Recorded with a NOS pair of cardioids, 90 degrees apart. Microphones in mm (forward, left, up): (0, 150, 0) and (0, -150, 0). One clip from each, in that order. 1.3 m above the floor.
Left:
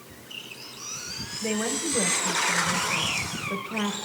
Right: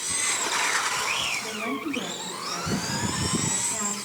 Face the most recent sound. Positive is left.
turn(degrees=60)